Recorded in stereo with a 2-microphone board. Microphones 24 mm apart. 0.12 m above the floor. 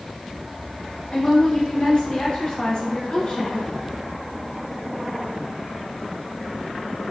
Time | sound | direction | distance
1.1 | a woman speaking | 35° left (ahead or behind) | 1.5 m